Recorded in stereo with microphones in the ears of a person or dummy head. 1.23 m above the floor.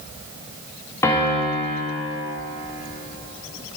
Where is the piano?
15° left (ahead or behind), 1.8 m.